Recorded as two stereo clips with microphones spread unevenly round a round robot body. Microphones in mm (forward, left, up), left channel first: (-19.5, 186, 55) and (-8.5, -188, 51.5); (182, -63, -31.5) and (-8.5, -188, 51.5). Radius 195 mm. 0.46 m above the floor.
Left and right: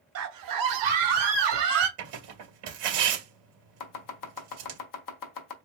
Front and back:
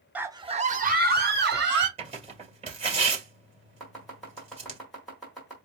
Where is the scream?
45° right, 1.1 m; by 1.9 s 100° right, 2.5 m.